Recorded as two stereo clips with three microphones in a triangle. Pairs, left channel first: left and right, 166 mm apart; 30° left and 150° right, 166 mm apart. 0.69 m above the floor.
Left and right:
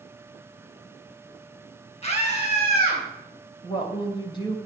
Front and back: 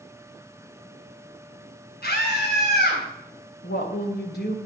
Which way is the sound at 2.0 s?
40° left.